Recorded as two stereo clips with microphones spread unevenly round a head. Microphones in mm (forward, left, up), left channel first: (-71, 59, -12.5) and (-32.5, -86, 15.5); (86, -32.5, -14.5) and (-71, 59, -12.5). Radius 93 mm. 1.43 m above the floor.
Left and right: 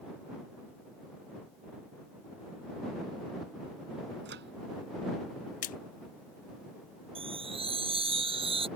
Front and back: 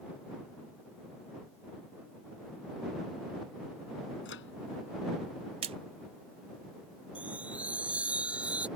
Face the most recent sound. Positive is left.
turn(degrees=-125)